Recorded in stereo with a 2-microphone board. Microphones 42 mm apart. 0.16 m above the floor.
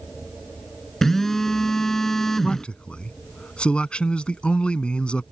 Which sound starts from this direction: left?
A man speaking, at 2.4 s.